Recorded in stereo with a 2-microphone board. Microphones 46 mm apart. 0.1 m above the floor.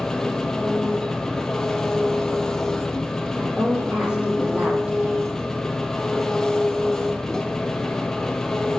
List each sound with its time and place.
0.0 s an engine running: 10° left (ahead or behind), 0.8 m
3.4 s a woman speaking: 30° right (ahead or behind), 4 m